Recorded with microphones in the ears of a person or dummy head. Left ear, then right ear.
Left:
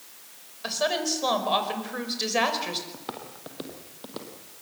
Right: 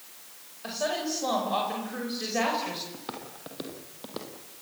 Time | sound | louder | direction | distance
0.6 | a woman speaking | left 4 dB | 35° left (ahead or behind) | 5.5 m
2.9 | footsteps | left 1 dB | 15° left (ahead or behind) | 2.5 m